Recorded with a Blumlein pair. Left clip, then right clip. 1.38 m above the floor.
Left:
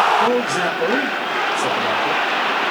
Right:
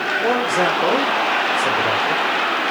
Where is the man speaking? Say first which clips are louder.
Even; 65° left, 2.5 m.